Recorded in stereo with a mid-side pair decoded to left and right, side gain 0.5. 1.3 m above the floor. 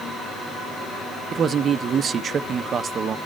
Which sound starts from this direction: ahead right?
A man speaking, at 1.3 s.